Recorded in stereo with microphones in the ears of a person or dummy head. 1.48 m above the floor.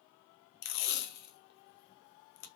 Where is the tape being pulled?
55° left (ahead or behind), 0.5 m.